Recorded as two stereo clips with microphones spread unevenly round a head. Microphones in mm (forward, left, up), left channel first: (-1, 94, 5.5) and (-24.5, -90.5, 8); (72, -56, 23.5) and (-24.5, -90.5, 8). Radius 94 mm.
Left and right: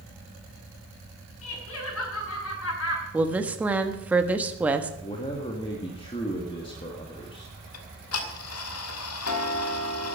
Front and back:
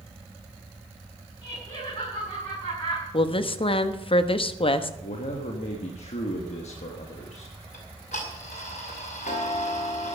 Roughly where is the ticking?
Left.